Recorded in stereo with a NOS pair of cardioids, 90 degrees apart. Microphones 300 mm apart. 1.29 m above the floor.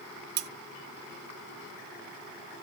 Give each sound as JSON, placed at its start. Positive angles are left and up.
{"t": 0.4, "sound": "cutlery clinking", "azimuth_deg": -65, "distance_m": 1.1}